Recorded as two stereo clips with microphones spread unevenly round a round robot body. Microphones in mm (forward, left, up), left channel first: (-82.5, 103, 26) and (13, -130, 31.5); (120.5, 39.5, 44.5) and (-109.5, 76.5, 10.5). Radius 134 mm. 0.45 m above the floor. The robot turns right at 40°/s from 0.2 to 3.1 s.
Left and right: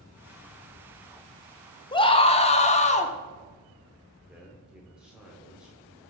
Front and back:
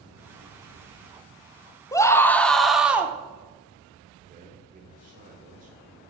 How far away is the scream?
About 0.8 m.